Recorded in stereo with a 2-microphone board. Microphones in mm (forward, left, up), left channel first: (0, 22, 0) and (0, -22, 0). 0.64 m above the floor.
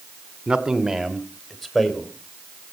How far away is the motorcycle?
I don't hear a motorcycle.